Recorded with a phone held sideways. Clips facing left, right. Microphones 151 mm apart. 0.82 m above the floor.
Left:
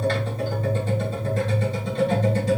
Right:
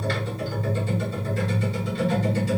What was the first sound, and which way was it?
A machine running, 45° left (ahead or behind).